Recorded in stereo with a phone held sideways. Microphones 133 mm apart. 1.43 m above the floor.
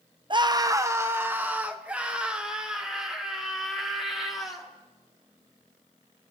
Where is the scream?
35° right (ahead or behind), 0.8 m; by 4.7 s centre (ahead or behind), 4 m.